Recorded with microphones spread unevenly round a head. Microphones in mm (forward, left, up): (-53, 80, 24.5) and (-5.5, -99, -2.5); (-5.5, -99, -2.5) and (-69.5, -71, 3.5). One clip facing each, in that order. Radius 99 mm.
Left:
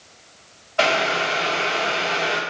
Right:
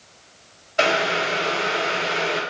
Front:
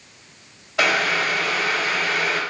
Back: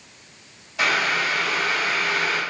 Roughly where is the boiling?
Ahead.